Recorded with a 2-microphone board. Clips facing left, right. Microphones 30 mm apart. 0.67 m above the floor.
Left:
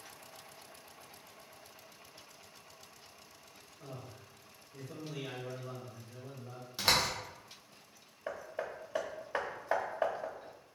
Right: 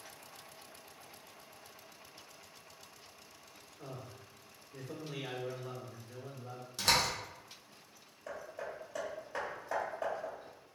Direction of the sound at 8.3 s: 35° left (ahead or behind).